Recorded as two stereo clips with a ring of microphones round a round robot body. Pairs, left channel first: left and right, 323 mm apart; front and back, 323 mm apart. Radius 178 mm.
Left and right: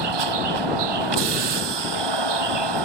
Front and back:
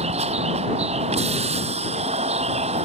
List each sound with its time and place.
0.0 s a vehicle: 105° right